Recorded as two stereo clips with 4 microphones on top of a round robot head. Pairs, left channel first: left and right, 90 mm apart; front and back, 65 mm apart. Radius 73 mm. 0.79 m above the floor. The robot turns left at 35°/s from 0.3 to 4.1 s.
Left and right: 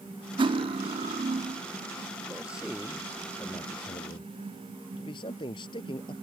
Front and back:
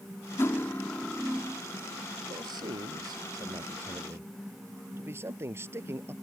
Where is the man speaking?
165° right; by 6.1 s 130° left.